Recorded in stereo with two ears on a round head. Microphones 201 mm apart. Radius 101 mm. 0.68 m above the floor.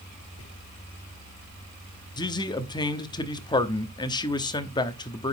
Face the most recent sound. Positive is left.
turn(degrees=20)  # may be behind; listen again after turning